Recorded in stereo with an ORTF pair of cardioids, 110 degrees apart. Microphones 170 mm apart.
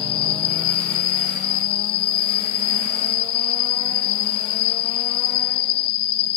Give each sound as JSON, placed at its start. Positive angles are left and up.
{"t": 0.0, "sound": "an insect", "azimuth_deg": 65}